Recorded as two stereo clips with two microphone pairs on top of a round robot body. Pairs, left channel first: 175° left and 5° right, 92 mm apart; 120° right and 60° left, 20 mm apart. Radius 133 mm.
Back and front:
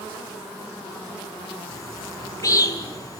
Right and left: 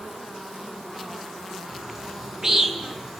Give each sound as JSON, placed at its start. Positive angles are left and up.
{"t": 1.7, "sound": "a bird", "azimuth_deg": 125, "distance_m": 2.5}